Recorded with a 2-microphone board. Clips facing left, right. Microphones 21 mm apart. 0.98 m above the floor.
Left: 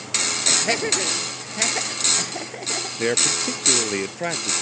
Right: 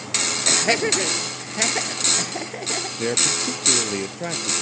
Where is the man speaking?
20° left (ahead or behind).